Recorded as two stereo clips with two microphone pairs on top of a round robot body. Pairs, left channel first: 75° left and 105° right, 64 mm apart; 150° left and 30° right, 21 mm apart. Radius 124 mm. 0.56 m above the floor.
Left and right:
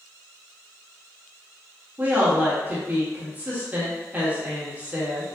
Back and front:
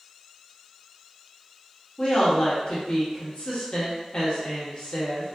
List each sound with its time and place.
2.0 s a woman speaking: 165° right, 1.5 m